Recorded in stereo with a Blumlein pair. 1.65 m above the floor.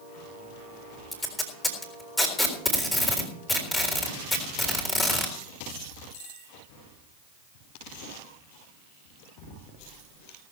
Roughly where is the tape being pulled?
Ahead.